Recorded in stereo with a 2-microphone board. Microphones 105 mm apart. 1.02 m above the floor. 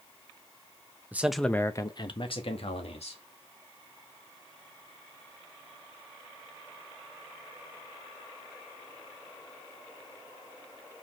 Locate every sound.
1.1 s a man speaking: 15° right (ahead or behind), 1.0 m; by 3.2 s 75° left (ahead or behind), 2.5 m